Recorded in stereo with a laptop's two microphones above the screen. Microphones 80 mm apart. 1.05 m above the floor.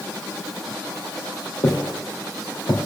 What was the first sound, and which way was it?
Footsteps, 65° left (ahead or behind).